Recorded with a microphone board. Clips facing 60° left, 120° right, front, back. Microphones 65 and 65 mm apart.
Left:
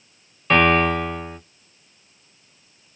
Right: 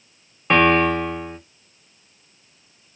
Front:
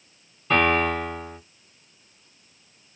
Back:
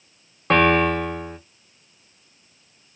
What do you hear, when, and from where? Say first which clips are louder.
0.5 s a piano: right 1 dB, back 4 dB; 170° left, 1.1 m